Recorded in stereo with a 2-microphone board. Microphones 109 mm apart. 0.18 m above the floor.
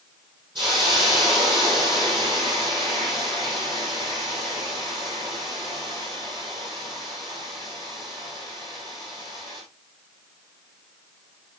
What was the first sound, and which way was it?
A hiss, 45° right (ahead or behind).